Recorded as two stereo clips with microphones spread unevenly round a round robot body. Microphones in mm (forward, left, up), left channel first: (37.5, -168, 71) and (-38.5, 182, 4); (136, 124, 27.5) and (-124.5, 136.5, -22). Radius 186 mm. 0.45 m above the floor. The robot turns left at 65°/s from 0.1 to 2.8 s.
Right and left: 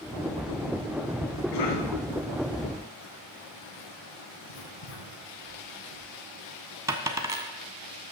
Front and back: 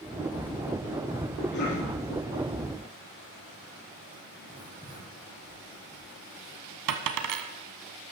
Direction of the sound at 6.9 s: 175° right.